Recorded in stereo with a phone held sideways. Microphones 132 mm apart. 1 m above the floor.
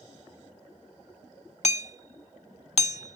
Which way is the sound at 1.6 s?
60° left (ahead or behind).